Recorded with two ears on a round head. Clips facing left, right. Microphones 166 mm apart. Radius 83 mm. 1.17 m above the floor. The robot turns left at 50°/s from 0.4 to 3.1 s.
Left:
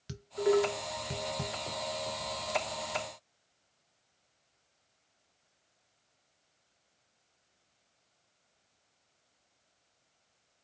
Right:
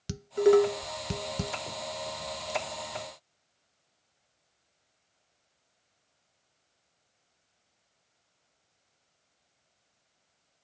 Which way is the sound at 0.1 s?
60° right (ahead or behind).